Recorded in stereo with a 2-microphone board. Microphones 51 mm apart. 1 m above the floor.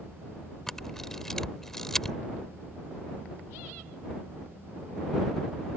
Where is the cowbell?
No cowbell in this recording.